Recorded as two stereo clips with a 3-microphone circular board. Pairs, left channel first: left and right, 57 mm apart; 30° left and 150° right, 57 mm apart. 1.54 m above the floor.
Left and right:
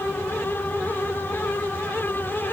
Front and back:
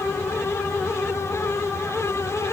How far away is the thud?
I don't hear a thud.